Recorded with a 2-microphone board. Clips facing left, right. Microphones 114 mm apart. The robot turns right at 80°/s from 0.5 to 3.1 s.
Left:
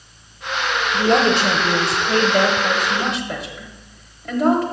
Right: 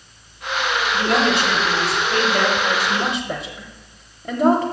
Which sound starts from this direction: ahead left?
A woman speaking, at 0.9 s.